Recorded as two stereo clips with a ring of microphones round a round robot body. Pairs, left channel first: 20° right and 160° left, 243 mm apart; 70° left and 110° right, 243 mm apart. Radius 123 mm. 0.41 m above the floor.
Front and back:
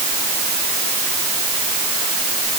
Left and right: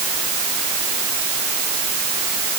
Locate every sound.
Only background noise.